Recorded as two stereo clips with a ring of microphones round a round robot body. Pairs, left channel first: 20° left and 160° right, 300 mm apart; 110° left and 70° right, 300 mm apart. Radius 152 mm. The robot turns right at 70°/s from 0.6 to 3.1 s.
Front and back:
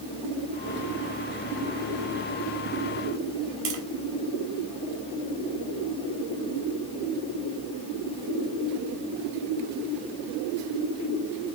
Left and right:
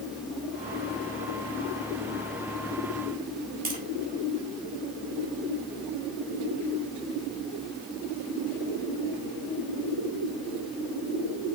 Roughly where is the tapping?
Behind right.